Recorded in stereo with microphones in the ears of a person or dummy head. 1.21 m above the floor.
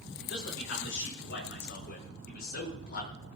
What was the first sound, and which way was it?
A man speaking, 65° left (ahead or behind).